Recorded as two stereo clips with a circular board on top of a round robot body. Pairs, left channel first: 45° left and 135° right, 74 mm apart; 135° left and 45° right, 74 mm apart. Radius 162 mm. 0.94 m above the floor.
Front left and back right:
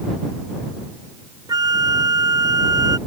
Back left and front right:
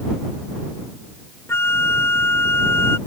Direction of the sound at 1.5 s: 170° right.